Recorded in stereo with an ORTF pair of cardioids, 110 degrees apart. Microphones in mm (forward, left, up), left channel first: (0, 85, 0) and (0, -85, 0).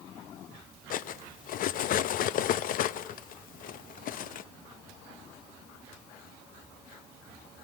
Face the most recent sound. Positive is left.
turn(degrees=60)